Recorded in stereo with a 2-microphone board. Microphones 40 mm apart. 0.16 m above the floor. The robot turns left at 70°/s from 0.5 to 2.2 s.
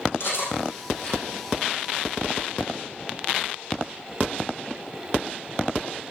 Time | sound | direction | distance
0.2 | cutlery clinking | 70° left (ahead or behind) | 4.5 m